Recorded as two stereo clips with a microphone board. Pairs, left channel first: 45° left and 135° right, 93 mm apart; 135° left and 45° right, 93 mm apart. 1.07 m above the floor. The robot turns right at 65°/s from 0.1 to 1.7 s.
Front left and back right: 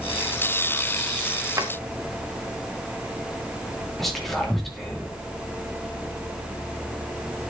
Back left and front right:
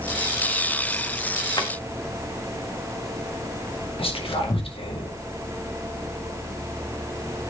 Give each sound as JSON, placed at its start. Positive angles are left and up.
{"t": 1.6, "sound": "a drawer", "azimuth_deg": 170, "distance_m": 1.0}
{"t": 4.0, "sound": "whispering", "azimuth_deg": 135, "distance_m": 2.0}